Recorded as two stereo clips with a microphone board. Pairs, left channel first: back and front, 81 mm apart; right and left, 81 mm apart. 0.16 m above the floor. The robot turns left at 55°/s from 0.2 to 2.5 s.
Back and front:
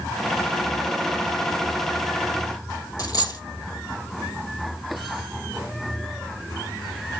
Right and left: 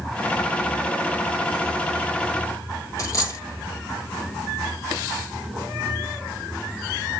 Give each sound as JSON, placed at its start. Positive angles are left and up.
{"t": 3.0, "sound": "a dropped coin", "azimuth_deg": -140, "distance_m": 2.0}